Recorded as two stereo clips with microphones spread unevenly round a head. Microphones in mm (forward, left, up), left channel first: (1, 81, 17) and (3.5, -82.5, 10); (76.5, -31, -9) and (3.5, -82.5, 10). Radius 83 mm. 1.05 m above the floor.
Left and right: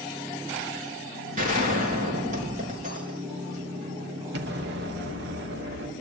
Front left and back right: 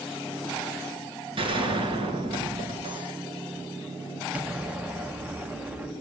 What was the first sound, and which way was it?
A gunshot, 135° right.